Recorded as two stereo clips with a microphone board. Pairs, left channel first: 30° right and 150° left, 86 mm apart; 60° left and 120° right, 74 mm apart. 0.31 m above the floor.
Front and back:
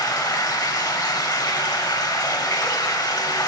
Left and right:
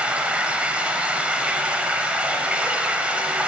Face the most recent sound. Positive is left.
turn(degrees=-50)